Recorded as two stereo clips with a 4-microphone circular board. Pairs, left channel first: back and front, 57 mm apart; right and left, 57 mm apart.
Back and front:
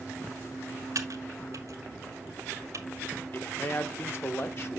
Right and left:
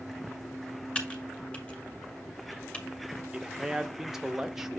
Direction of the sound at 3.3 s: 170° left.